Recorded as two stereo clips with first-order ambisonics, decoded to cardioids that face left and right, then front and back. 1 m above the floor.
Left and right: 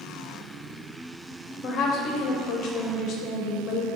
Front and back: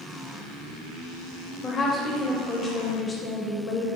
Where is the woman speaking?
70° left, 0.7 m.